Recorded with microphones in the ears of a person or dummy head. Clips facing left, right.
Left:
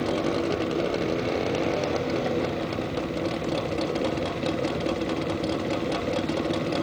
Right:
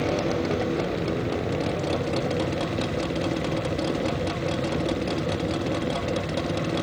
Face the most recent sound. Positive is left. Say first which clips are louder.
# even
turn(degrees=-15)  # may be behind; listen again after turning